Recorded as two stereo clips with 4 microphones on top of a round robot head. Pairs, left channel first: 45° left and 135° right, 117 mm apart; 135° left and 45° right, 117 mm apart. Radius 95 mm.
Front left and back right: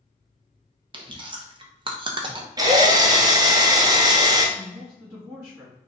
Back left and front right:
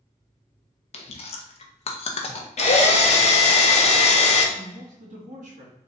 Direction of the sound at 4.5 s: 65° right.